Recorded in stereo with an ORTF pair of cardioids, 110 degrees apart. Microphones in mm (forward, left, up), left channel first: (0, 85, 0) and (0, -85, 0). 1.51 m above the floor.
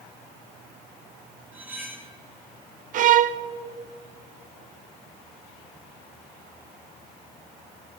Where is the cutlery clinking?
10° right, 2.5 m.